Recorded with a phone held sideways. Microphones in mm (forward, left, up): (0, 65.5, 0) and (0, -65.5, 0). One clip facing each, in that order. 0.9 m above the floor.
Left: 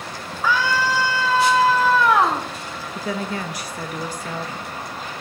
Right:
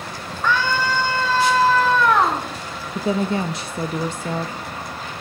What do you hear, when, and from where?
0.4 s a scream: 5° left (ahead or behind), 1.8 m
3.0 s a woman speaking: 25° right (ahead or behind), 0.6 m